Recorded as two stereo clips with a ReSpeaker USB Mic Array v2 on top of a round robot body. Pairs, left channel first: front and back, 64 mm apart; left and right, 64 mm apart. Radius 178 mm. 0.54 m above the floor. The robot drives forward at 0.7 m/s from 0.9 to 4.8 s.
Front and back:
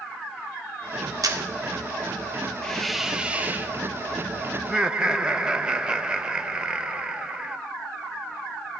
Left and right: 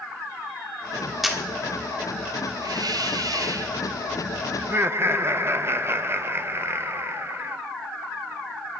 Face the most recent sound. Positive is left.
turn(degrees=-115)